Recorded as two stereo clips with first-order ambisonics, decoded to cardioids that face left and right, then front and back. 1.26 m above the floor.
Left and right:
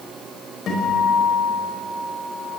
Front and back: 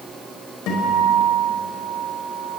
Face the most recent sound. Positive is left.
turn(degrees=35)